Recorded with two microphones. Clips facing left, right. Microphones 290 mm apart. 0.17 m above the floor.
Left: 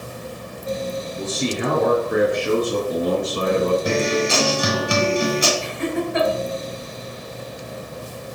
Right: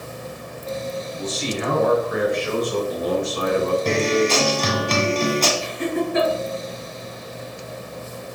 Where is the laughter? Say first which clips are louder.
Even; 40° right (ahead or behind), 3 m.